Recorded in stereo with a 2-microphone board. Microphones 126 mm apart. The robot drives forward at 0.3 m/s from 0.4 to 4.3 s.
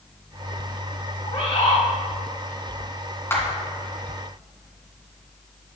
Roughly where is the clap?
Centre.